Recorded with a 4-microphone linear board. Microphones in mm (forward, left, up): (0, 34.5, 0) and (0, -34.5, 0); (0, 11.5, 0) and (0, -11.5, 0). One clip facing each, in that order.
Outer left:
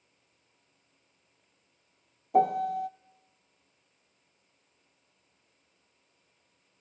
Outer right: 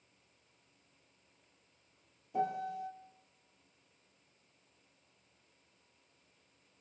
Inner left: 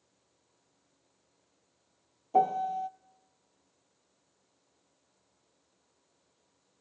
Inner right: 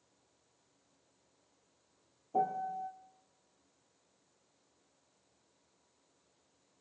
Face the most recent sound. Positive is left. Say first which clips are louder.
# outer left 11 dB, inner left 7 dB
turn(degrees=65)  # may be behind; listen again after turning